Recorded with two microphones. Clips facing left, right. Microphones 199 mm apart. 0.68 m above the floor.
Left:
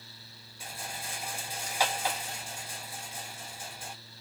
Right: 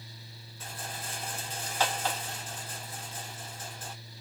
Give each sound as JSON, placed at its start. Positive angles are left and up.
{"t": 0.6, "sound": "a rattle", "side_deg": 10, "distance_m": 1.0}